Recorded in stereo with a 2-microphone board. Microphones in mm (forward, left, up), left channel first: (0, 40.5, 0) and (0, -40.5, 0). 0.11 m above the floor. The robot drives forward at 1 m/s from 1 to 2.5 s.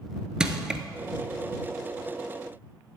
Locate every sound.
0.4 s crushing: 10° right (ahead or behind), 0.9 m